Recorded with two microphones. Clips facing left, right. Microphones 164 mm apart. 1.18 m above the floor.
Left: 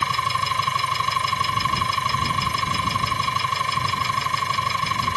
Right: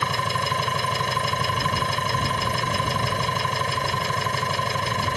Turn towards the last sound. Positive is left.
turn(degrees=-55)  # may be behind; listen again after turning